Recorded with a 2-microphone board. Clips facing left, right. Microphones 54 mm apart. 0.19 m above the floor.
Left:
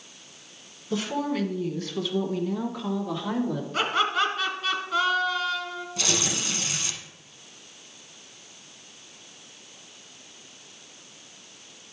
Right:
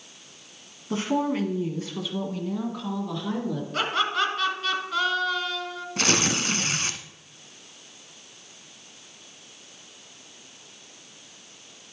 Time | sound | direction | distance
0.9 | a woman speaking | 35° right (ahead or behind) | 1.4 m
3.7 | laughter | centre (ahead or behind) | 2 m
6.0 | tearing paper | 55° right (ahead or behind) | 0.6 m